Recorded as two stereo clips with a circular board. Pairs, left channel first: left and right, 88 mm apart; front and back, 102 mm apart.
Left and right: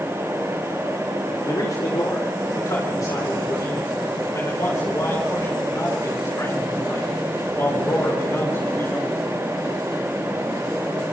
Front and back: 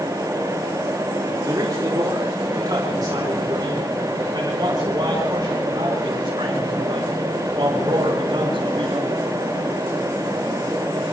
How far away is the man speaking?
About 4.5 m.